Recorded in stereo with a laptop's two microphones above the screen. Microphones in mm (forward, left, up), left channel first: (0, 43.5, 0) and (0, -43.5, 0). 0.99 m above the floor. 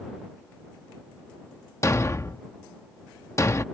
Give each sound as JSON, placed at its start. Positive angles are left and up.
{"t": 1.8, "sound": "a thud", "side_deg": 35}